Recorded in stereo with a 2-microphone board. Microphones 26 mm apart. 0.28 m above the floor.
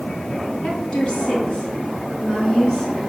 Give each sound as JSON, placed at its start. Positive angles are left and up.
{"t": 0.6, "sound": "a woman speaking", "side_deg": 35, "distance_m": 3.0}